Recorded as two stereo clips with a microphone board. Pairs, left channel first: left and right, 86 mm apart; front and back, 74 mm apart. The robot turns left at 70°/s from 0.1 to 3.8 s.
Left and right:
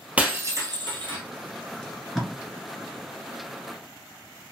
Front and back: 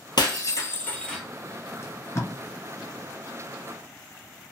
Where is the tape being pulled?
15° left, 1.7 m; by 2.3 s 20° right, 1.7 m.